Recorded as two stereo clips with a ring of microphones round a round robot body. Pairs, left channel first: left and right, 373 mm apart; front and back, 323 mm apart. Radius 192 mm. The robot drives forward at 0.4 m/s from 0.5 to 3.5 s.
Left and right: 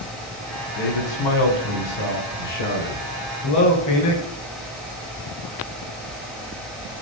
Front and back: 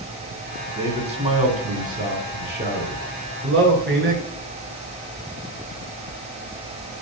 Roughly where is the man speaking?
Left.